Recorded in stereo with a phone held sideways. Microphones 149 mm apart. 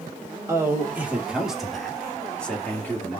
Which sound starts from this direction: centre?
A man speaking, at 0.5 s.